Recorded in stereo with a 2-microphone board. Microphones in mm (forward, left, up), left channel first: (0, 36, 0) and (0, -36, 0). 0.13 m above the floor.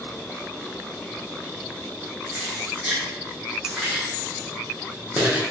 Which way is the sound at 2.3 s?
10° right (ahead or behind).